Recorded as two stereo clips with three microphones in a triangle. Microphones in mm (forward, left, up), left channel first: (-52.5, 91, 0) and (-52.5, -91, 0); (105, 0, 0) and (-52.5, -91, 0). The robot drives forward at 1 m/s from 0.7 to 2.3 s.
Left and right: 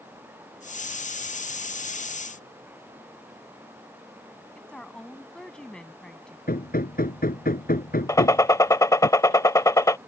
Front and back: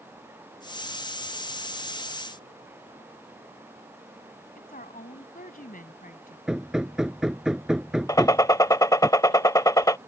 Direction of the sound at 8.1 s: 55° left.